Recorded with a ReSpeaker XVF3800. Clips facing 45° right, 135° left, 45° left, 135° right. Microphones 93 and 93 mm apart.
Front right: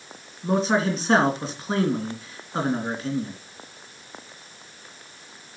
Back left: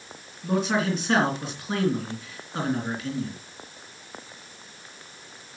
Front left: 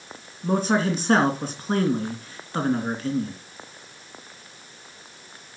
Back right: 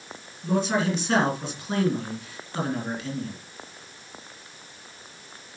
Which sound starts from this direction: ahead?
A man speaking, at 0.4 s.